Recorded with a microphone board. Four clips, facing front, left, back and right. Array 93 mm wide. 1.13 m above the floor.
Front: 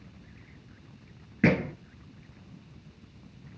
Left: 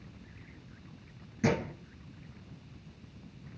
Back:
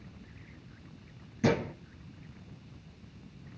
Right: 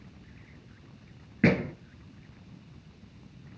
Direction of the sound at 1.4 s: 35° right.